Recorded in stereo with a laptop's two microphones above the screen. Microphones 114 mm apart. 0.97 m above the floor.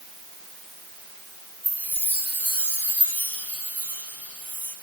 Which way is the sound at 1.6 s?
15° left (ahead or behind).